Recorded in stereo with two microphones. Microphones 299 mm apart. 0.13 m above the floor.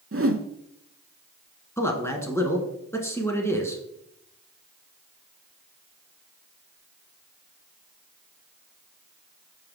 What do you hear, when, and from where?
0.1 s a whoosh: 50° right (ahead or behind), 0.5 m
1.8 s a man speaking: 10° left (ahead or behind), 1.1 m